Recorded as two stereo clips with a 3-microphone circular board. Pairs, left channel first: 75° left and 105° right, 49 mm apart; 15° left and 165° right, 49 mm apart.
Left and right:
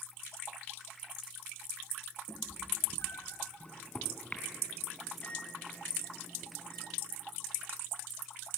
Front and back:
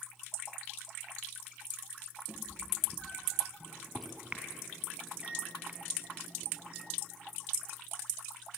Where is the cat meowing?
100° left, 3 m; by 3.5 s 115° left, 2.5 m.